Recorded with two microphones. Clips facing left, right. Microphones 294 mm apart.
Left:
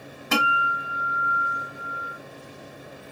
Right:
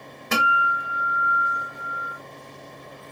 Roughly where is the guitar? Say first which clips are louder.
Left 1 dB; right.